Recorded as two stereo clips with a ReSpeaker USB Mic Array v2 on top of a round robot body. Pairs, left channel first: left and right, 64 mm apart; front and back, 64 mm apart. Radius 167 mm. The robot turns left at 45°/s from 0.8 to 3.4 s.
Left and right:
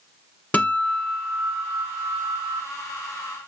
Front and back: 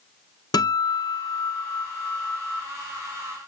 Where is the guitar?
20° left, 0.7 m; by 2.6 s 60° right, 0.7 m.